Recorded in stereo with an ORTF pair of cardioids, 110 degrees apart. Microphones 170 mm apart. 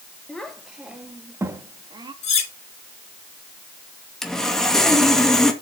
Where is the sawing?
5° left, 2 m.